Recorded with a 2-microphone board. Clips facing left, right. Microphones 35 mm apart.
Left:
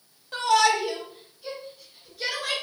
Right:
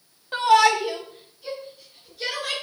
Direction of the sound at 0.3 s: 25° right (ahead or behind).